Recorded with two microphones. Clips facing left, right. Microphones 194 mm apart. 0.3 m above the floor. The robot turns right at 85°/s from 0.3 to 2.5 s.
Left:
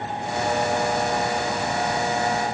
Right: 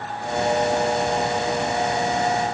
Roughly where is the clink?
I don't hear a clink.